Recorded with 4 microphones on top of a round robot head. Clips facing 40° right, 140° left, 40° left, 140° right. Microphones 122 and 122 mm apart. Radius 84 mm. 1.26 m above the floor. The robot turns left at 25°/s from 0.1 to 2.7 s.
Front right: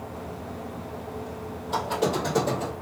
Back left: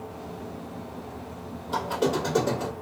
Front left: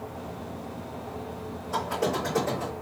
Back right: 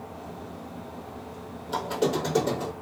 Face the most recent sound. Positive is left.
turn(degrees=-155)